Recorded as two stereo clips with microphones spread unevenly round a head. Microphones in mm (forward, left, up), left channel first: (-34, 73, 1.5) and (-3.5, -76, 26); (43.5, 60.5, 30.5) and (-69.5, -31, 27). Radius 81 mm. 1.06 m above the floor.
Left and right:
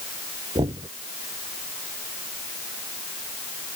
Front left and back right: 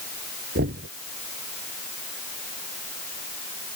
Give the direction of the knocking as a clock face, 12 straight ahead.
5 o'clock.